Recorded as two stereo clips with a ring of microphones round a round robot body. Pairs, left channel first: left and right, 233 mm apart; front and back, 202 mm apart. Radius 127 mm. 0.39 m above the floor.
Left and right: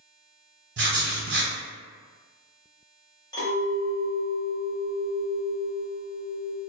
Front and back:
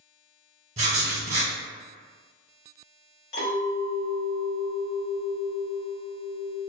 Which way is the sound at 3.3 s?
15° left.